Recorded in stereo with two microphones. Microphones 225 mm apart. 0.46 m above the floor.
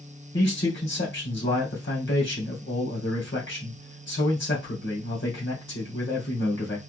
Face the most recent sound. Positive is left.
turn(degrees=60)  # may be behind; listen again after turning